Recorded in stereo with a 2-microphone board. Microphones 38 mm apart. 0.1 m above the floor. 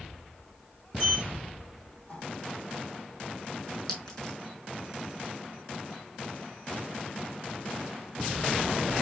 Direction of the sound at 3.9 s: 20° left (ahead or behind).